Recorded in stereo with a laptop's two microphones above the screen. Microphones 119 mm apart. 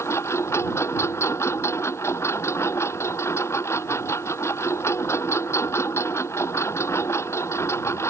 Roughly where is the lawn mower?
Left.